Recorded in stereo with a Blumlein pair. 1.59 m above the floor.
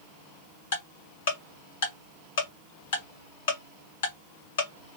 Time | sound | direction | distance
0.7 | ticking | 60° left | 1.7 m